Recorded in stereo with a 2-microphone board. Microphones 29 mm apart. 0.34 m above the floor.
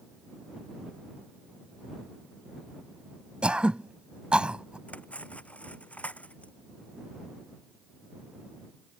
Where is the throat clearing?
35° right (ahead or behind).